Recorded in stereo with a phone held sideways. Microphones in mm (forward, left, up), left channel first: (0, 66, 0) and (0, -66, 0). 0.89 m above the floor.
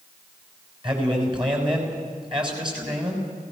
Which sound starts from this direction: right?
A man speaking, at 0.8 s.